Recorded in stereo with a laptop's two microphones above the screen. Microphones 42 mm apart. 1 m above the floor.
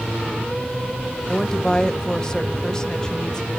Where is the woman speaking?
15° left (ahead or behind), 0.6 m.